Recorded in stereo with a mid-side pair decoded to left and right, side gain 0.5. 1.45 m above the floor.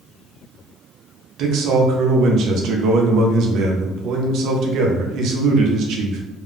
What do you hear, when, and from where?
1.4 s a man speaking: 70° right, 0.7 m